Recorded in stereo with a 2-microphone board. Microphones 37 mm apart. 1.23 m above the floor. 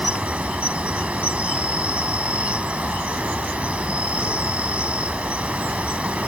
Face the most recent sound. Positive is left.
turn(degrees=-30)  # may be behind; listen again after turning